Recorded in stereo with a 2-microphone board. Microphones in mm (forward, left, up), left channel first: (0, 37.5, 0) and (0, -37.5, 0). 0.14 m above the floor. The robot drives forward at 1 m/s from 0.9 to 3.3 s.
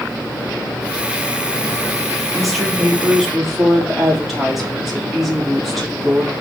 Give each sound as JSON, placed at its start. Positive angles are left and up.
{"t": 2.3, "sound": "a woman speaking", "side_deg": 0, "distance_m": 5.0}